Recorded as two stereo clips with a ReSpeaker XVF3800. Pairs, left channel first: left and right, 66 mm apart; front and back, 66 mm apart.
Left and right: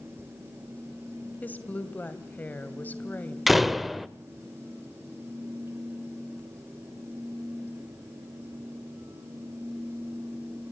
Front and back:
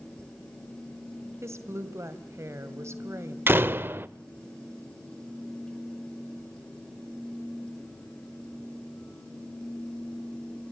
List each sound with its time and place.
1.4 s a woman speaking: 150° left, 2 m
3.5 s a door slam: 175° right, 0.6 m